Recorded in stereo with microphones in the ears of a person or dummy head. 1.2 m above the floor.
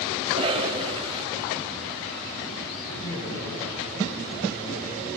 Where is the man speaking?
55° left (ahead or behind), 9 m.